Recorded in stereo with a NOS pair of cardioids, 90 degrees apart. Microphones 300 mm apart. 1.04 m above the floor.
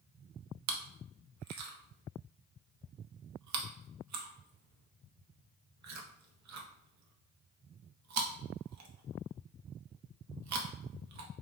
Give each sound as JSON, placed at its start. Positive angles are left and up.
{"t": 0.7, "sound": "chewing", "azimuth_deg": -65, "distance_m": 0.6}